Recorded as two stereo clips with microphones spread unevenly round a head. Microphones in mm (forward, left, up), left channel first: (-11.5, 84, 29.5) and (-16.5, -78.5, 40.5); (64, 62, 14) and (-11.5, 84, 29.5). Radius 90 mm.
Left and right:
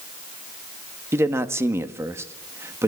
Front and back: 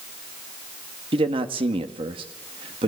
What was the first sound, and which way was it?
A man speaking, 170° right.